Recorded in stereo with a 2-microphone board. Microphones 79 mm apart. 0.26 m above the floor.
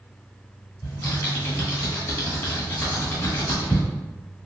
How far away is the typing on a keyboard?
About 1.4 m.